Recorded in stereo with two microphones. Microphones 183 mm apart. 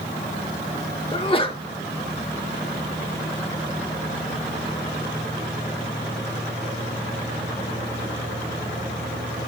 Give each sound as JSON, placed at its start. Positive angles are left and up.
{"t": 1.1, "sound": "a sneeze", "side_deg": 30, "distance_m": 0.9}